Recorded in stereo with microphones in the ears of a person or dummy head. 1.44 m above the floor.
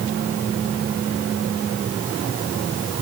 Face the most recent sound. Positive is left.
No sound to turn to.